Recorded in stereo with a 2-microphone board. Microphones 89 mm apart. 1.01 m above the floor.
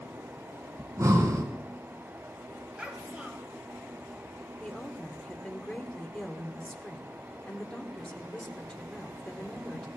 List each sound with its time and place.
0.8 s breathing: 40° right (ahead or behind), 2 m
2.8 s a child speaking: 15° right (ahead or behind), 3 m
4.6 s a woman speaking: 10° left (ahead or behind), 2.5 m